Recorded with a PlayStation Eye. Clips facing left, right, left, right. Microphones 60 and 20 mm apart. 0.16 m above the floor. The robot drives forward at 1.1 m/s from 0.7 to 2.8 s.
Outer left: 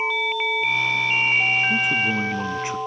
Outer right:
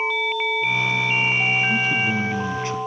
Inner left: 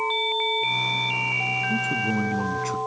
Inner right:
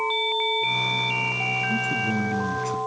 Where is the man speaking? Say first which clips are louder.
Even, even; 15° left (ahead or behind).